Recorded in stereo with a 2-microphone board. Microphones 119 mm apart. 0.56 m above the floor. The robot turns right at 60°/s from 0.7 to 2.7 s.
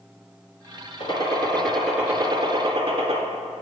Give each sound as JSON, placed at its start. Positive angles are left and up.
{"t": 1.0, "sound": "a gunshot", "azimuth_deg": 130, "distance_m": 1.6}